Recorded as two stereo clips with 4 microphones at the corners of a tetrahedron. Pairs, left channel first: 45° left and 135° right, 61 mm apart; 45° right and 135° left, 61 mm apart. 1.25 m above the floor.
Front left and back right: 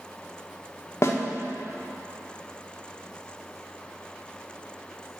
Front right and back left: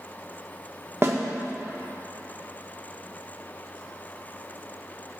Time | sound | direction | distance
1.0 | a snare drum | 85° left | 0.9 m